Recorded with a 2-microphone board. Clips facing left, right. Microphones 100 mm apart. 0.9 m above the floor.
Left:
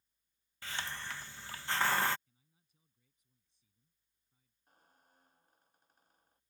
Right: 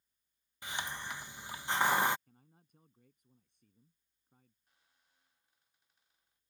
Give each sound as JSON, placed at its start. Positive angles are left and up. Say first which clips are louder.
{"t": 0.6, "sound": "a hiss", "louder": "right 1 dB", "side_deg": -15}
{"t": 2.3, "sound": "a man speaking", "louder": "right 14 dB", "side_deg": -60}
{"t": 4.7, "sound": "a squeak", "louder": "left 9 dB", "side_deg": 45}